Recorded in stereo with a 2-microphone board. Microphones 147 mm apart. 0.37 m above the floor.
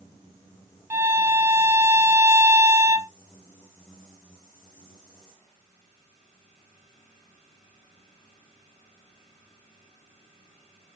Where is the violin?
20° right (ahead or behind), 0.6 m.